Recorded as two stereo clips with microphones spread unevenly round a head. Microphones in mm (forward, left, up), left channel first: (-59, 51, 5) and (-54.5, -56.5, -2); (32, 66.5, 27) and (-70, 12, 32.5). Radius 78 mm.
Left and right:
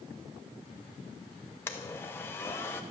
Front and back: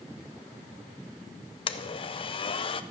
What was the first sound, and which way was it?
A blender, 20° left.